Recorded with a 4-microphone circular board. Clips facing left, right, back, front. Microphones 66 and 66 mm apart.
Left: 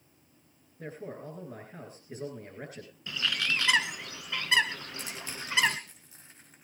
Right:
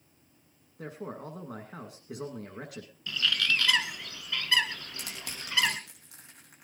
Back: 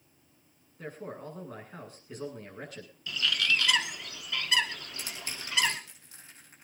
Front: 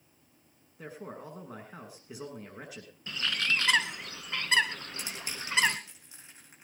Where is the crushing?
75° right, 5.5 m.